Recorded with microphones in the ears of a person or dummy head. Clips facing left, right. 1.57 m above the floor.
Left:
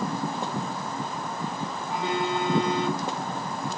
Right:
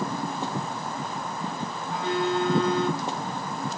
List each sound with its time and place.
1.9 s a phone buzzing: 75° left (ahead or behind), 4 m